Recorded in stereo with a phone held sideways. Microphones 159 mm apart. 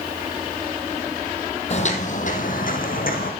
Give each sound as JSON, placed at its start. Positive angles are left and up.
{"t": 1.7, "sound": "footsteps", "side_deg": 45, "distance_m": 1.6}